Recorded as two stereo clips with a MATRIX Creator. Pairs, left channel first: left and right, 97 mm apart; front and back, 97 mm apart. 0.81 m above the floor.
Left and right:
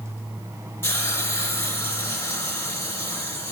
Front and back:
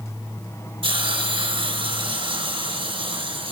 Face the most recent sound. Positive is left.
turn(degrees=155)